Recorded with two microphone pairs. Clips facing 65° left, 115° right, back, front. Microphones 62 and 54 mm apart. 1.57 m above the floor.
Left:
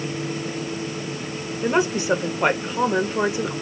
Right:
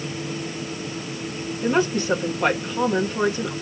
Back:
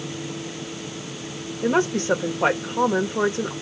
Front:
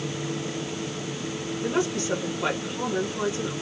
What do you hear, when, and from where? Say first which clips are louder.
1.6 s a woman speaking: even, back 6 dB; 140° left, 1.5 m